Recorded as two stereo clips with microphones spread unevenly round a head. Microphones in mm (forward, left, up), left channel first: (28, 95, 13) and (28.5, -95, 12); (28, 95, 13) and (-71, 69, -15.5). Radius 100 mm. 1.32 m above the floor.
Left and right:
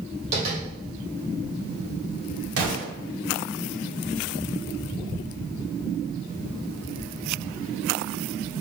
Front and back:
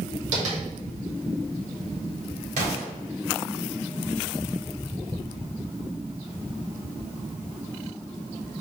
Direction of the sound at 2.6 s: 125° right.